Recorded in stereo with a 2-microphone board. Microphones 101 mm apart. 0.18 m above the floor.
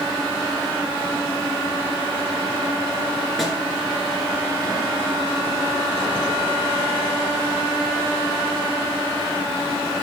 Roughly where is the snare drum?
Centre.